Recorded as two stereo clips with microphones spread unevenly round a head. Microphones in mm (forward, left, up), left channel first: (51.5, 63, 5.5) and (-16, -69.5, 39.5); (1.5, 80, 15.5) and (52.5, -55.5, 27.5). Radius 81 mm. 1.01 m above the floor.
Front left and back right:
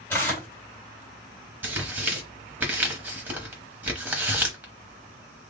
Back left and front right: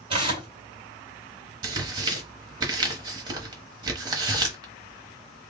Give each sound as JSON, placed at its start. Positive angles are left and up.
{"t": 0.1, "sound": "tearing paper", "azimuth_deg": -15, "distance_m": 2.0}
{"t": 1.6, "sound": "tearing paper", "azimuth_deg": -85, "distance_m": 0.9}